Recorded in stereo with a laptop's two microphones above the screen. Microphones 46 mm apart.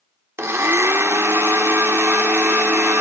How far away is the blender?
About 1.0 m.